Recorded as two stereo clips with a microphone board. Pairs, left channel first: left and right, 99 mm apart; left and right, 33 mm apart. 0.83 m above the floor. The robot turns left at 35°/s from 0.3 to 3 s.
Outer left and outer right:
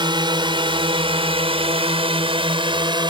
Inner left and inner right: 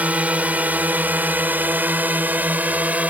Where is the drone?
55° right (ahead or behind).